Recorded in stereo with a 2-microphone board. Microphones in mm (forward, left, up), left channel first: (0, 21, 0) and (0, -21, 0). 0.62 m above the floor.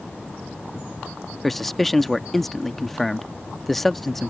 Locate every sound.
1.4 s a man speaking: 5° left (ahead or behind)